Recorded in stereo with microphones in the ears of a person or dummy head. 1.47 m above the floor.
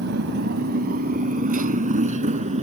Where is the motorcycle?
65° right (ahead or behind); by 2.6 s 40° right (ahead or behind).